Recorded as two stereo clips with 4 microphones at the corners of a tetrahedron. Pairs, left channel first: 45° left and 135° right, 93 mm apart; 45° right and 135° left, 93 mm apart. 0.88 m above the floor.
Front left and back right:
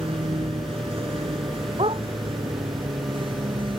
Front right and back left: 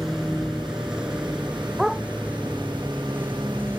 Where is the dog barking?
140° right.